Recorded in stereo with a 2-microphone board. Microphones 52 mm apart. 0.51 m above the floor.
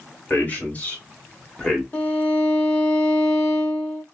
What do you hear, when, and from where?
0.3 s a man speaking: 35° left (ahead or behind), 1.5 m; by 1.8 s 15° left (ahead or behind), 1.2 m
1.9 s a violin: 40° left (ahead or behind), 1.3 m